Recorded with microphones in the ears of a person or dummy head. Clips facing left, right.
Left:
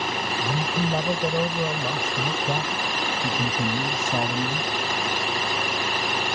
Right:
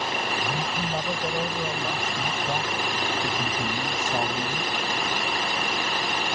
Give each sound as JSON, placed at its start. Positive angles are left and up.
{"t": 0.4, "sound": "a man speaking", "side_deg": 45}